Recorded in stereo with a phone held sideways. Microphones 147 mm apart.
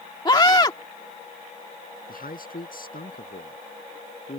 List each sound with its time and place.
0.2 s a scream: 30° left (ahead or behind)
2.1 s a man speaking: 75° left (ahead or behind)